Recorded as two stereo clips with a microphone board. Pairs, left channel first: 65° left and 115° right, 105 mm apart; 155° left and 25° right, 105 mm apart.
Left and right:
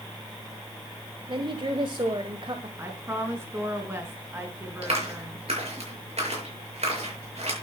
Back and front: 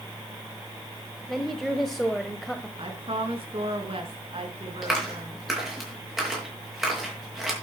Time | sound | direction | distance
1.3 | a woman speaking | 115° right | 1.3 m
2.8 | a woman speaking | 50° right | 4 m
4.8 | a clap | 110° right | 6.5 m